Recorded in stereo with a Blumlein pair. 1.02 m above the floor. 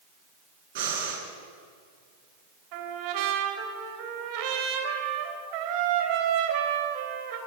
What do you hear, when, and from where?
0.8 s breathing: 55° right, 6.5 m
2.7 s a trumpet: 45° right, 3.5 m